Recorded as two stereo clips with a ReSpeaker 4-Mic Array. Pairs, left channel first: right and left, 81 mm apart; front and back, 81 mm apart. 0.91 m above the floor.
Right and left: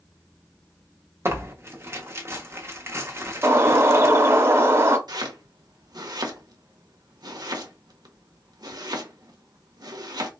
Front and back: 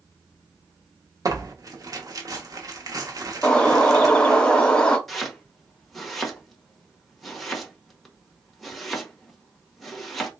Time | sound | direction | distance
1.2 | tearing paper | 145° left | 0.8 m
3.4 | a bird | 70° left | 0.8 m
5.1 | chopping | 90° left | 0.9 m